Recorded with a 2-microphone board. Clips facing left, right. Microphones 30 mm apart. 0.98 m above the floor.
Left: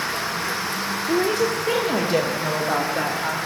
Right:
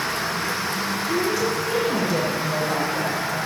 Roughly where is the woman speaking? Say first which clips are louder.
Left 3 dB; left.